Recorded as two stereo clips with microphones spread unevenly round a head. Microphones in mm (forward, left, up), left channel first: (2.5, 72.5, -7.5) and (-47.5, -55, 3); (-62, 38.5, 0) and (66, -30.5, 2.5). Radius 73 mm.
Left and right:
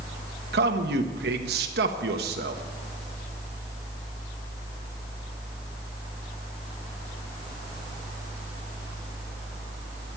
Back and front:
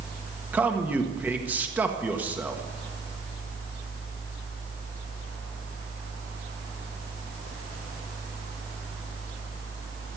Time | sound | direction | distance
0.5 | a man speaking | 105° right | 1.5 m